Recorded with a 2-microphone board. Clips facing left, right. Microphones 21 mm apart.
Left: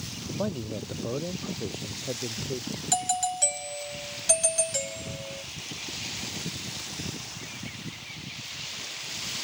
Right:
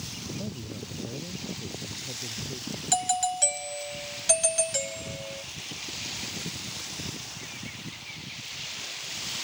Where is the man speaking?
75° left (ahead or behind).